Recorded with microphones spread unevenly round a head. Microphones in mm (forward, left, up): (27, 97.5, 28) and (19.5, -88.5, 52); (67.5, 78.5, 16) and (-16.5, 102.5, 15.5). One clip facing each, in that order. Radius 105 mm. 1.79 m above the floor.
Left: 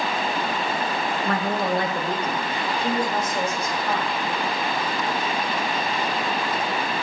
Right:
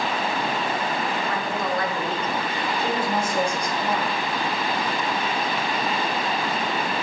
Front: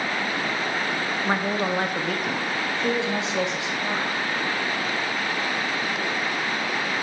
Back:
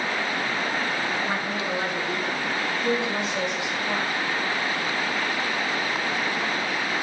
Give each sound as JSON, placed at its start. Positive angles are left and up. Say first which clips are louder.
{"t": 1.2, "sound": "a woman speaking", "louder": "left 2 dB, front 3 dB", "azimuth_deg": 40, "distance_m": 0.9}